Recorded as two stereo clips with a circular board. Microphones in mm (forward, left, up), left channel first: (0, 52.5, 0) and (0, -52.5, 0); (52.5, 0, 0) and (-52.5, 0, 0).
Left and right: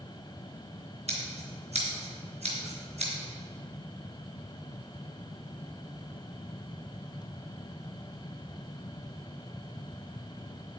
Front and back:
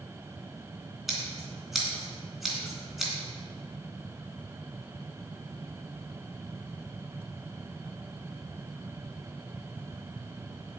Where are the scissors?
90° right, 3 m.